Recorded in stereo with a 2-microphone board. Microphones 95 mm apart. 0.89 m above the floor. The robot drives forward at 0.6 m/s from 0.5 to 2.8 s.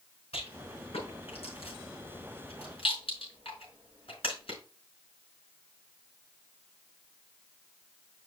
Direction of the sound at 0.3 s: 85° left.